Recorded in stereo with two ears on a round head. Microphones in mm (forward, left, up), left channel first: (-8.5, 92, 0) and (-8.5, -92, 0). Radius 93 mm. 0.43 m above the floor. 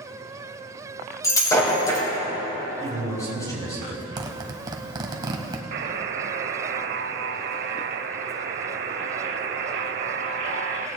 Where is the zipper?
20° right (ahead or behind), 1.2 m.